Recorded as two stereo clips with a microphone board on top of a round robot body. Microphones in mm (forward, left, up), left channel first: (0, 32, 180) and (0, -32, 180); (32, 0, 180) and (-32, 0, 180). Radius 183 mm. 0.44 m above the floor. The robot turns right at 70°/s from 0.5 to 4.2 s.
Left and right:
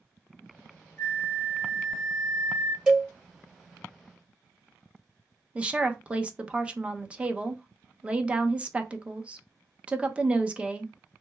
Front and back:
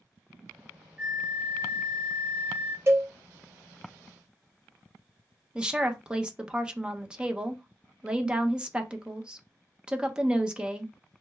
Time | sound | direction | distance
1.0 | a flute | 100° left | 1.2 m
2.9 | a cowbell | 165° right | 1.4 m
5.5 | a woman speaking | 130° right | 0.8 m